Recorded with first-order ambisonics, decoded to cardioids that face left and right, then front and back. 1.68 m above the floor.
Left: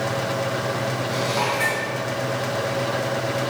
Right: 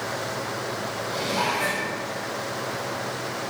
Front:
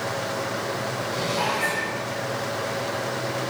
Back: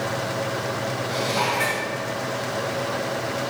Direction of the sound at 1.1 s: 165° left.